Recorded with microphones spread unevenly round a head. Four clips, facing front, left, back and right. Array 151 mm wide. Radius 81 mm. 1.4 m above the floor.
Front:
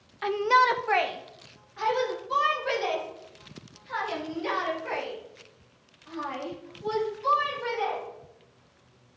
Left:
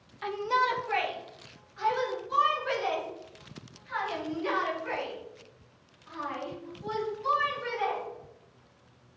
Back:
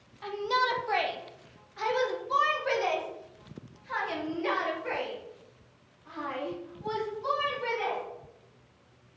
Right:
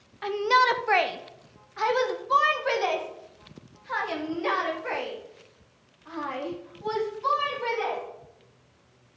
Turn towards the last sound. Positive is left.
turn(degrees=-100)